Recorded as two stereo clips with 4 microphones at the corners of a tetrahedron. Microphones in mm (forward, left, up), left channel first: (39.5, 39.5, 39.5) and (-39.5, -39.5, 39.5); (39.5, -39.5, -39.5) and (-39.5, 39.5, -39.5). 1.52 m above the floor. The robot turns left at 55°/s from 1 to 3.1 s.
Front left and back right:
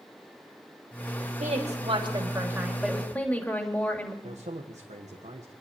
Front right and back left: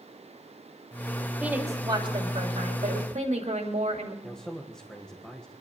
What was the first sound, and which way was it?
A woman speaking, 145° right.